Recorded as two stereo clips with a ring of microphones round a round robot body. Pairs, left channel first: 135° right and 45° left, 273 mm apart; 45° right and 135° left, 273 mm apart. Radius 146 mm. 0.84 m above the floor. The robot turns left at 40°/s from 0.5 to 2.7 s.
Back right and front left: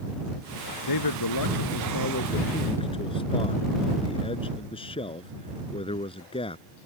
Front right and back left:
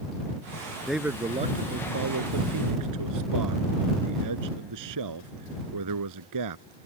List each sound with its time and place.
0.9 s a man speaking: 135° right; by 6.7 s 155° left